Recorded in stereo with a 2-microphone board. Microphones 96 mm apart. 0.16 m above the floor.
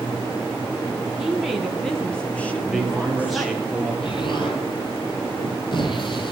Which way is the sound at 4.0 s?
55° left (ahead or behind).